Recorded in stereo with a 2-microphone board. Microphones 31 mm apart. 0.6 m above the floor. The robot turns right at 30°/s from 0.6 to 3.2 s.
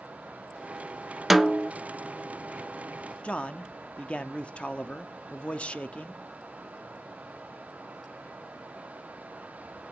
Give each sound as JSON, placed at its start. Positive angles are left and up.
{"t": 1.3, "sound": "a snare drum", "side_deg": -10, "distance_m": 0.5}
{"t": 3.2, "sound": "a man speaking", "side_deg": 40, "distance_m": 0.8}